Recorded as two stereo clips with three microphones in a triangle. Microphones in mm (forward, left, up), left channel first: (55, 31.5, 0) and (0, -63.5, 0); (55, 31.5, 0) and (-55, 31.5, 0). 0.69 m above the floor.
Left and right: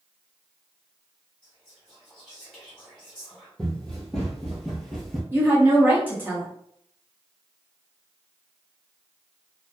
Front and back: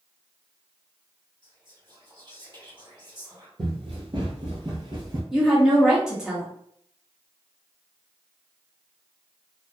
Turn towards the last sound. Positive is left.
turn(degrees=-115)